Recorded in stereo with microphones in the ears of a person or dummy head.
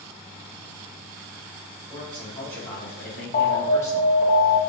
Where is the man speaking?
10° left (ahead or behind), 2 m; by 4.1 s 15° left (ahead or behind), 1.1 m.